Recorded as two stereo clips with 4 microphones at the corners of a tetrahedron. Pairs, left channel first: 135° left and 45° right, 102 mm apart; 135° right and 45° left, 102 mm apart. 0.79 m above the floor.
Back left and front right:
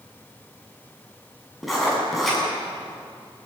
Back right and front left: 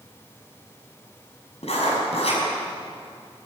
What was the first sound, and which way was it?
Writing, 135° right.